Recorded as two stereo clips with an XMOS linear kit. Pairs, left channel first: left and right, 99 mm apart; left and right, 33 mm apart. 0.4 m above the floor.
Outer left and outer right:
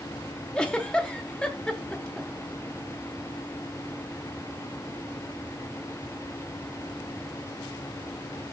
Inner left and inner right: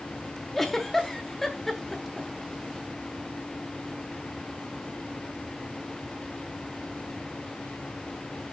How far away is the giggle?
About 1.2 m.